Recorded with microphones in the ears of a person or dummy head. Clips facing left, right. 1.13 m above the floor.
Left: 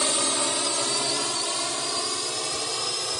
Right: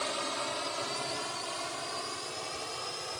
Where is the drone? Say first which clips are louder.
Left 8 dB; 55° left (ahead or behind); by 3.2 s 60° left (ahead or behind).